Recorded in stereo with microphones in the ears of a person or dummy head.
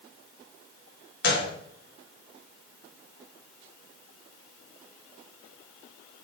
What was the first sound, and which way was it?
A gunshot, 60° left (ahead or behind).